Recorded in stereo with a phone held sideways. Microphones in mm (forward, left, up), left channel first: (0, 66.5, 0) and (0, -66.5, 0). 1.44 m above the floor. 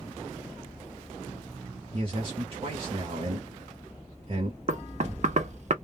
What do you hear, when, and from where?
1.9 s a man speaking: 45° right (ahead or behind), 0.8 m
4.7 s knocking: 55° right (ahead or behind), 0.5 m